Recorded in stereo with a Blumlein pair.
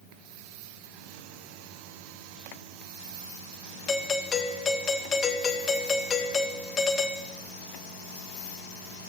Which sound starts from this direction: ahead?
A doorbell, at 3.9 s.